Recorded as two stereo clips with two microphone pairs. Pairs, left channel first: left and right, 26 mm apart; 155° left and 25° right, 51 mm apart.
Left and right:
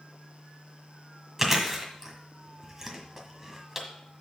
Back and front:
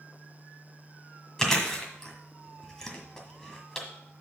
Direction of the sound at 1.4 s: 150° right.